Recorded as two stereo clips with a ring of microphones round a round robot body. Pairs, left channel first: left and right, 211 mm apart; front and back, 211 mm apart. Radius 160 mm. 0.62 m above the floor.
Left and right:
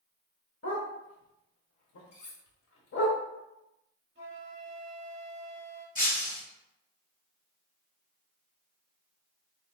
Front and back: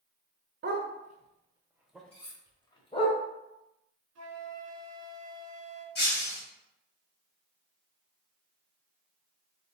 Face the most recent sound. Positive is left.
turn(degrees=40)